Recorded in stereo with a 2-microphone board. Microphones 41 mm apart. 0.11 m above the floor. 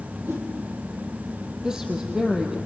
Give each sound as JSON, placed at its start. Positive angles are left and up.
{"t": 0.3, "sound": "a whoosh", "side_deg": -60, "distance_m": 4.5}
{"t": 1.6, "sound": "a woman speaking", "side_deg": -15, "distance_m": 3.0}